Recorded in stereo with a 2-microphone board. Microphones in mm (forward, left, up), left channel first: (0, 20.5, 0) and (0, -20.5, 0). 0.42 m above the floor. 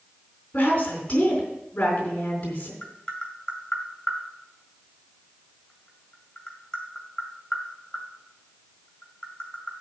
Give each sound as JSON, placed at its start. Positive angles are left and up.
{"t": 0.5, "sound": "a woman speaking", "side_deg": 35, "distance_m": 4.0}
{"t": 2.8, "sound": "tapping", "side_deg": 15, "distance_m": 2.0}